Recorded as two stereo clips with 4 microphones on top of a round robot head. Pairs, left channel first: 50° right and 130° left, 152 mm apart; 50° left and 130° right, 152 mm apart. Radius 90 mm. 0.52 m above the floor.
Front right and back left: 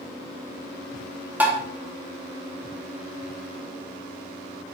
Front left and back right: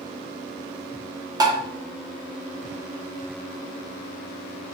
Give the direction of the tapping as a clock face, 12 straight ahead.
5 o'clock.